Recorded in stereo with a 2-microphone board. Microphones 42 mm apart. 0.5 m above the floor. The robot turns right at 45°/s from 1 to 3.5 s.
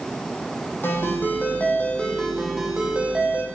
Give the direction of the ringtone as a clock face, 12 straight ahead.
8 o'clock.